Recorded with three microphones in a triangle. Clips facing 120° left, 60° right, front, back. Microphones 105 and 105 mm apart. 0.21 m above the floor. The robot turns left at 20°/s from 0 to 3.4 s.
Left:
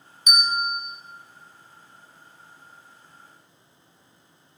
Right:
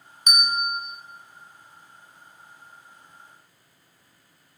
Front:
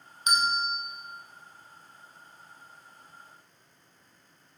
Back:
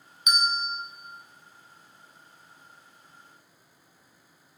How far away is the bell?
About 0.5 m.